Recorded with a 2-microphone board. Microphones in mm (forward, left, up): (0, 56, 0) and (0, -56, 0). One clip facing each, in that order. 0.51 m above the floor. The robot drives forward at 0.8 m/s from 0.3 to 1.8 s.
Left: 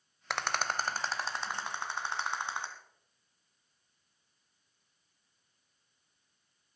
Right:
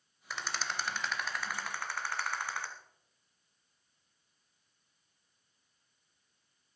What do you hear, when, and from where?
0.3 s a rattle: 75° left (ahead or behind), 0.6 m; by 2.7 s 20° left (ahead or behind), 1.5 m